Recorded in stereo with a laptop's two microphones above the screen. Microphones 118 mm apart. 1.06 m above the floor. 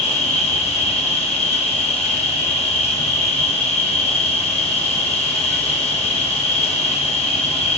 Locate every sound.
0.0 s an insect: 60° left (ahead or behind), 1.4 m